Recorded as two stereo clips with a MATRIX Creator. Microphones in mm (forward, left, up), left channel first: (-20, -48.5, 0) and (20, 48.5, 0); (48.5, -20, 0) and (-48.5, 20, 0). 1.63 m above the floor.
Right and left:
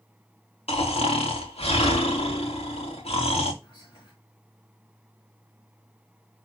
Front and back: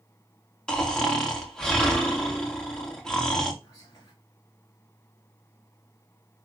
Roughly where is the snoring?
Right.